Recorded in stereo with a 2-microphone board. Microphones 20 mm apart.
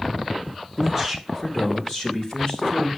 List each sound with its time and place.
0.8 s a man speaking: 5° left (ahead or behind), 0.8 m; by 2.9 s 50° left (ahead or behind), 2.5 m